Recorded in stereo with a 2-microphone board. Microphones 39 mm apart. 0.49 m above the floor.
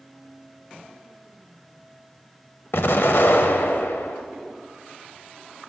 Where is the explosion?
70° left (ahead or behind), 0.5 m.